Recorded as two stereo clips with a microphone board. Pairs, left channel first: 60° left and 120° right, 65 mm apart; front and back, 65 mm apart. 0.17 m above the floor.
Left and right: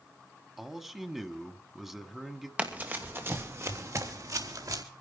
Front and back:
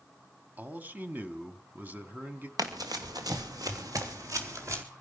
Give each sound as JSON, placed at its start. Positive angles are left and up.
{"t": 0.6, "sound": "a man speaking", "azimuth_deg": 165, "distance_m": 1.6}
{"t": 2.6, "sound": "running footsteps", "azimuth_deg": 175, "distance_m": 3.0}